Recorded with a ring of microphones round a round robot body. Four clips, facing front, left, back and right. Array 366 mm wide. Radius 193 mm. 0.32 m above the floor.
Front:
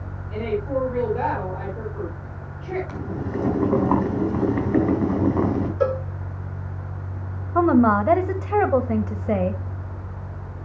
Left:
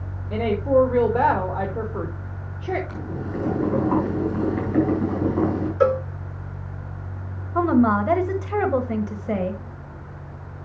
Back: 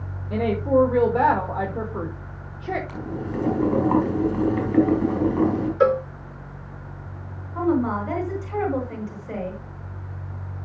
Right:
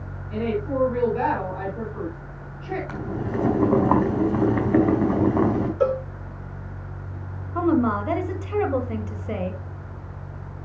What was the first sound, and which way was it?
A woman speaking, 140° left.